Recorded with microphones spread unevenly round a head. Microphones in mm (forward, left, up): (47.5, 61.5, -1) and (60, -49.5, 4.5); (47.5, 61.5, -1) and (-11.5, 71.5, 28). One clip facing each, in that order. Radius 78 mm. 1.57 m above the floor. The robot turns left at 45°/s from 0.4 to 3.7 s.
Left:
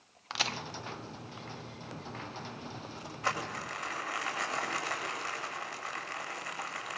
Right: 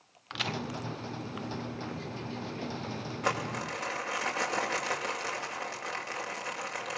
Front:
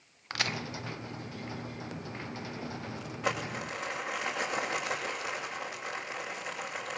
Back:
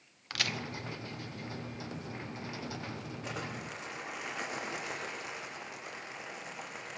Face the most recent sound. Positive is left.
turn(degrees=-80)